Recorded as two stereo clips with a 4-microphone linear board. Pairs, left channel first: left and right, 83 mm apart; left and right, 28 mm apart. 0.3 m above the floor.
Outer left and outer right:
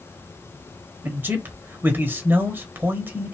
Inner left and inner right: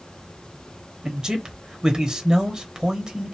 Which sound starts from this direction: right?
A man speaking, at 1.0 s.